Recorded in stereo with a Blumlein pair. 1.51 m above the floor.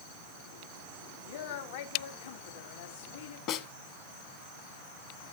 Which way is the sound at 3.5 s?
40° left.